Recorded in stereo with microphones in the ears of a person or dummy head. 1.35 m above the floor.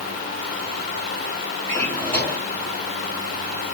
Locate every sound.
1.7 s a drawer: 15° left (ahead or behind), 2.5 m